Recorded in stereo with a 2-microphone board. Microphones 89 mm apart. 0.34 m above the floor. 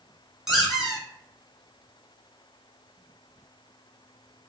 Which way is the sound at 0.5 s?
5° right (ahead or behind).